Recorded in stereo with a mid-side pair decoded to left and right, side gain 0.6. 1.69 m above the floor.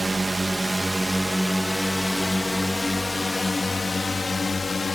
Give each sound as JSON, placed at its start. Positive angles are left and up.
{"t": 0.0, "sound": "a drone", "azimuth_deg": -20}